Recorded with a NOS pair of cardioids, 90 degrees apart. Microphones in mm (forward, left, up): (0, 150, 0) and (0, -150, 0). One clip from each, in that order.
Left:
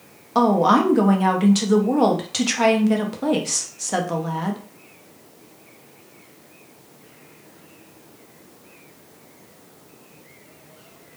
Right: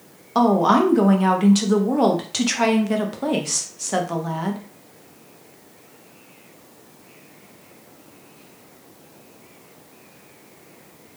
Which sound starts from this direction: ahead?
A woman speaking, at 0.3 s.